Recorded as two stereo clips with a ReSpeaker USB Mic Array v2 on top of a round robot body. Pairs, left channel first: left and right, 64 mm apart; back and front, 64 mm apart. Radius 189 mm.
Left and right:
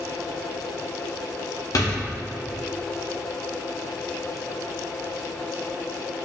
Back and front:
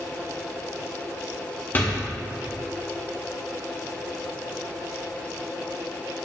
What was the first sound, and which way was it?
A door slam, 120° left.